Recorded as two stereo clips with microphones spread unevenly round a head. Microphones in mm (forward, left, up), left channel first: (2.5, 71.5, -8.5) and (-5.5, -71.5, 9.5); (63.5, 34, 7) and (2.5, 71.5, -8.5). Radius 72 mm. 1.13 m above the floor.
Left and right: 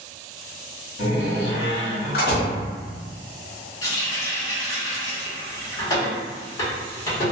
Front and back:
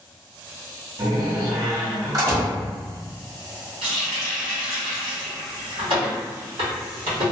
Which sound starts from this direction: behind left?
A running tap, at 3.8 s.